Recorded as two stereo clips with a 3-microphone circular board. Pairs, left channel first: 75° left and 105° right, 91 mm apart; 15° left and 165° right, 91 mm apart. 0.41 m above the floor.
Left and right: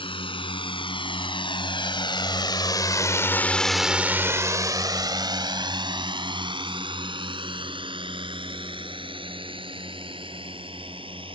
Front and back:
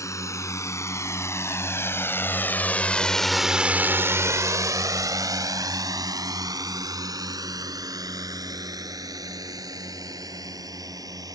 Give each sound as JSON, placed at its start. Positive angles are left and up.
{"t": 0.0, "sound": "a drone", "azimuth_deg": 70}